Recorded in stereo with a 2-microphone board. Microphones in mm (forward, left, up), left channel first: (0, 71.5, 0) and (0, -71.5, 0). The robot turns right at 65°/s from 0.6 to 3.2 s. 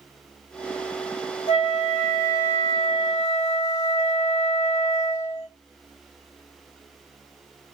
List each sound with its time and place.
1.5 s a flute: 50° left, 1.6 m; by 5.5 s 160° left, 1.6 m